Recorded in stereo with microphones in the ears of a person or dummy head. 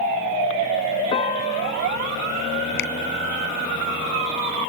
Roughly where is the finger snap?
Left.